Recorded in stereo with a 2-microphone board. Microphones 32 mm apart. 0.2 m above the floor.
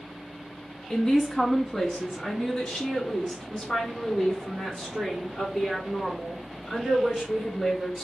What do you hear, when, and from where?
0.9 s a woman speaking: 10° left (ahead or behind), 1.4 m; by 8.0 s 15° left (ahead or behind), 5 m